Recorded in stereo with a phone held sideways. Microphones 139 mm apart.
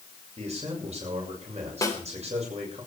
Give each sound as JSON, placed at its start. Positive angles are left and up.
{"t": 0.4, "sound": "a man speaking", "side_deg": -55, "distance_m": 6.5}
{"t": 1.8, "sound": "a snare drum", "side_deg": 25, "distance_m": 3.5}